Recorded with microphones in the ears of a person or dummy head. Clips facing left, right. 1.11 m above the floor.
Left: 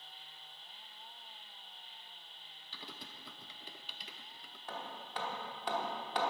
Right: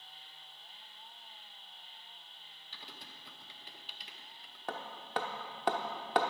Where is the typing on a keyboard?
85° left, 0.8 m.